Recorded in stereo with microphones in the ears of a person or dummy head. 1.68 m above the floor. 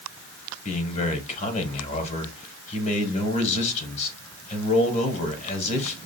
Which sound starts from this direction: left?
A man speaking, at 0.7 s.